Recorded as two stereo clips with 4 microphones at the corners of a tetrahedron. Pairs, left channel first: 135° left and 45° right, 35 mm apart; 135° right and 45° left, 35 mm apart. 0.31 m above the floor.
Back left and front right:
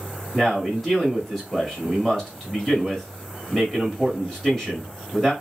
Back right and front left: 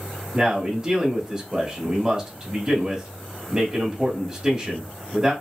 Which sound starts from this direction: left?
A man speaking, at 0.3 s.